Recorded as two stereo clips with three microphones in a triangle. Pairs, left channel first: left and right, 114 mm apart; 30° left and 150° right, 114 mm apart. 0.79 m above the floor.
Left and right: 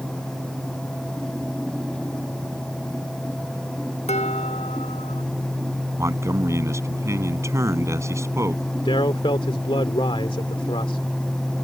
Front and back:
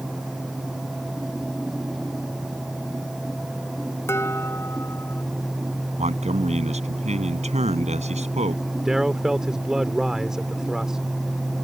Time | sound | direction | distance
4.1 | dishes clattering | 95° left | ?
6.0 | a man speaking | 155° right | ?
8.8 | a man speaking | 125° left | ?